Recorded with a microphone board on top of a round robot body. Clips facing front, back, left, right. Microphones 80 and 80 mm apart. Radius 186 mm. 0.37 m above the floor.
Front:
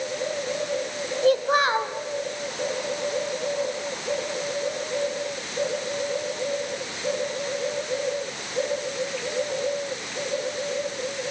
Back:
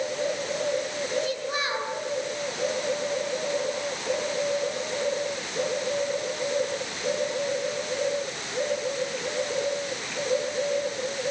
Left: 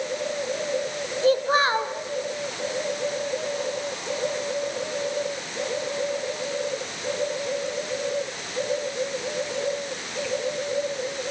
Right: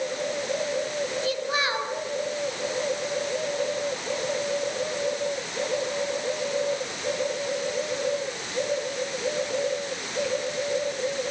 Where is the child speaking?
40° left, 1.8 m.